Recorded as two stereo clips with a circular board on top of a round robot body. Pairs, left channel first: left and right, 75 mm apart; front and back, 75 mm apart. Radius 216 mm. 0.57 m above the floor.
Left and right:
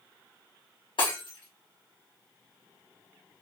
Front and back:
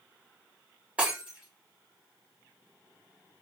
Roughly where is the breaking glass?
Left.